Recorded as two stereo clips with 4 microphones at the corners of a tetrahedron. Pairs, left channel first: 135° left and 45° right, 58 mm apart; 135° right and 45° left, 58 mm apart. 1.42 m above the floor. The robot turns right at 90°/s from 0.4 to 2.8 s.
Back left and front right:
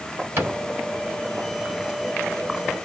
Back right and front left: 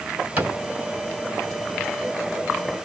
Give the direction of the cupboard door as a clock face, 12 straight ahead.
12 o'clock.